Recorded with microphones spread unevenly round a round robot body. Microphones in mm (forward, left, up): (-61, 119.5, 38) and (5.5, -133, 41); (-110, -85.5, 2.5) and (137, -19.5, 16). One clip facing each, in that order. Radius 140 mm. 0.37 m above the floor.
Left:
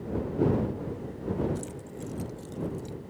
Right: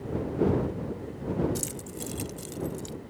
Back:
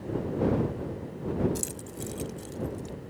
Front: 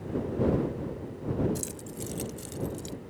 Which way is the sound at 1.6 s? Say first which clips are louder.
Right 1 dB, back 1 dB; 80° right.